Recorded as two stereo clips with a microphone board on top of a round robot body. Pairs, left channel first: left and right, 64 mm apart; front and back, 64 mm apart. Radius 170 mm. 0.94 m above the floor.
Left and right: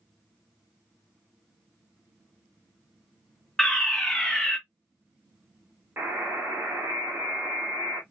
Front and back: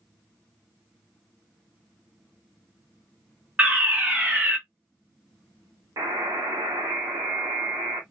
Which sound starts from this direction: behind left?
A fire alarm, at 3.6 s.